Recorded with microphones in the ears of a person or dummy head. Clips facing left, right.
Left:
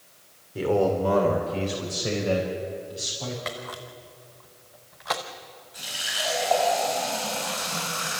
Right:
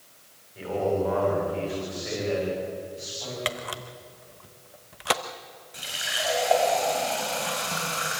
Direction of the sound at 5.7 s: 30° right (ahead or behind).